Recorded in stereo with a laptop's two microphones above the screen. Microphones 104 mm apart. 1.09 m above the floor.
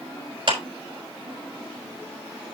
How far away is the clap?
About 4.5 m.